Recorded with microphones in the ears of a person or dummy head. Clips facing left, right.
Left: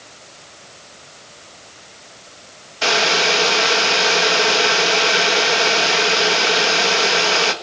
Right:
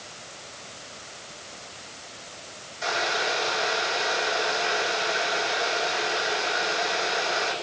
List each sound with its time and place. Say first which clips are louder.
2.8 s boiling: left 9 dB; 85° left, 2 m